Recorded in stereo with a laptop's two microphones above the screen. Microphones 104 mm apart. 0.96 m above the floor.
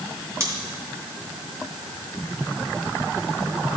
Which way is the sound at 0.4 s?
30° right (ahead or behind).